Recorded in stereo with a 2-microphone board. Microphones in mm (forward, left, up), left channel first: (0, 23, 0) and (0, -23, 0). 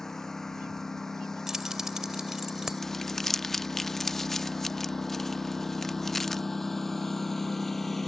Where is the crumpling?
5° left (ahead or behind).